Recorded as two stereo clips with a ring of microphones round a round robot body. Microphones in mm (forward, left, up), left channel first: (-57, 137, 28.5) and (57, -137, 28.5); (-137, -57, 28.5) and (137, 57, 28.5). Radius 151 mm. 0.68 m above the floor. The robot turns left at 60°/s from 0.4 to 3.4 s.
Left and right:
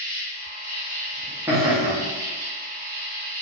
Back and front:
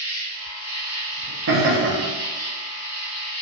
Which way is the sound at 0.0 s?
100° left.